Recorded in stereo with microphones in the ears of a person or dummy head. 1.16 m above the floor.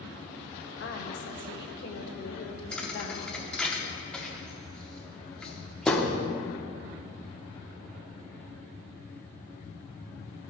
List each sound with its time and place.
0.8 s a woman speaking: 55° left (ahead or behind), 0.9 m
2.7 s a thud: centre (ahead or behind), 0.8 m